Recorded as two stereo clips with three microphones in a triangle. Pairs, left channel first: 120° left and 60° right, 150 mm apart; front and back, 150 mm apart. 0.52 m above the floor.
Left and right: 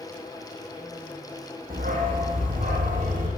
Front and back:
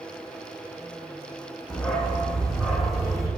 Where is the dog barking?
85° right, 10 m; by 3.3 s 90° right, 11 m.